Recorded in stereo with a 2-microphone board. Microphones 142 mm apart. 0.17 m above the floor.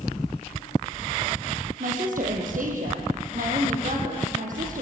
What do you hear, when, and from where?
1.8 s a woman speaking: 70° right (ahead or behind), 6 m